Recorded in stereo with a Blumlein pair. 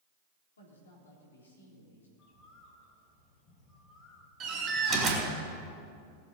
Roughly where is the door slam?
Ahead right.